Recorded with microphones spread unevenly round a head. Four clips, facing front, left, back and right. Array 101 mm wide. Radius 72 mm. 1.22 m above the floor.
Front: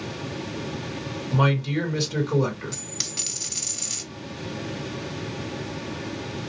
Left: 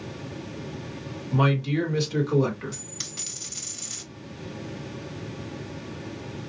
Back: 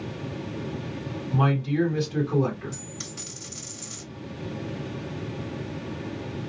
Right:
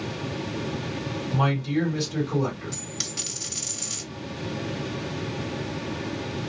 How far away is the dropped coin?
About 1.9 m.